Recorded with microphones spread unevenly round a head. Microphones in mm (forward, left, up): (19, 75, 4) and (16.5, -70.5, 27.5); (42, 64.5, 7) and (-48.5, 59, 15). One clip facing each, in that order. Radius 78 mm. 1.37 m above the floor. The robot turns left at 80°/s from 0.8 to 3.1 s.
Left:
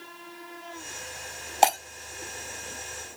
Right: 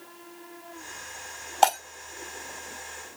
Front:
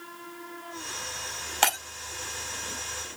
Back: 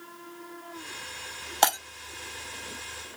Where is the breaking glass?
175° left, 1.1 m; by 1.8 s 160° left, 1.1 m.